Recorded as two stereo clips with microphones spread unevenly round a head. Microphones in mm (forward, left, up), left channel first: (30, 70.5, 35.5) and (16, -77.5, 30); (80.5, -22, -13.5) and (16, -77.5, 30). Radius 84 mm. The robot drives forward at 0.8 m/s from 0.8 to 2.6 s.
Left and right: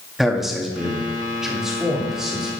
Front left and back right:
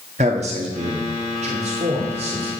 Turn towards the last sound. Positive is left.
turn(degrees=180)